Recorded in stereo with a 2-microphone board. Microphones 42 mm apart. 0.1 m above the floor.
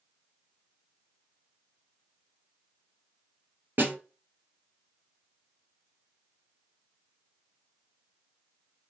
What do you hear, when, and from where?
3.8 s a snare drum: 50° right (ahead or behind), 1.7 m